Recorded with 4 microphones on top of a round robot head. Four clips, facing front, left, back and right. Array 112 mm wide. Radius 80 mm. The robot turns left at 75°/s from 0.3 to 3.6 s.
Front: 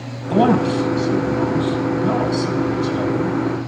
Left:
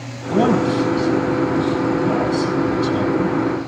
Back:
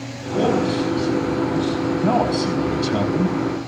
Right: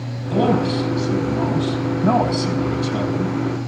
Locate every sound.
0.3 s a man speaking: 5° left, 5 m; by 3.7 s 115° left, 5 m